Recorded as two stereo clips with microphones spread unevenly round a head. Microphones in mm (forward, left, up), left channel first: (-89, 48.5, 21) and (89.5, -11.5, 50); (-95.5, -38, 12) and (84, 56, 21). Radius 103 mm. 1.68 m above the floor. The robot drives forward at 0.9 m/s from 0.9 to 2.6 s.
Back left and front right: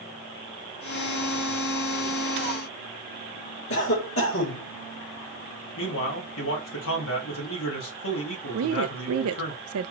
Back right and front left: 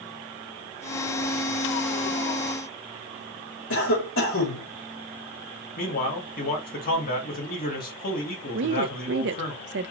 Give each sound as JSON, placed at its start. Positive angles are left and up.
{"t": 3.7, "sound": "a cough", "azimuth_deg": -175, "distance_m": 3.0}
{"t": 5.8, "sound": "a man speaking", "azimuth_deg": 160, "distance_m": 1.8}
{"t": 8.5, "sound": "a woman speaking", "azimuth_deg": -10, "distance_m": 0.5}